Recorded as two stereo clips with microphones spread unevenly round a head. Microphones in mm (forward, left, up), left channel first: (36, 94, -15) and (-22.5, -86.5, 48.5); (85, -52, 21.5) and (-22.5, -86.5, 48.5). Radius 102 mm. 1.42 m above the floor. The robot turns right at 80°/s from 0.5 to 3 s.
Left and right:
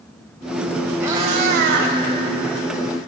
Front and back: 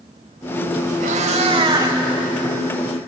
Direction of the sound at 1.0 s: 175° left.